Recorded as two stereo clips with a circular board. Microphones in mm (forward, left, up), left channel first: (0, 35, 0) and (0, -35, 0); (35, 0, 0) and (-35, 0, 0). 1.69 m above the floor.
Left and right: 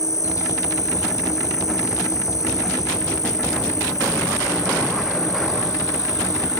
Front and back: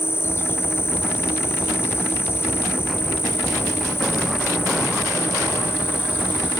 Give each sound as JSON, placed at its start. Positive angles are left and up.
{"t": 0.0, "sound": "an insect", "azimuth_deg": 55}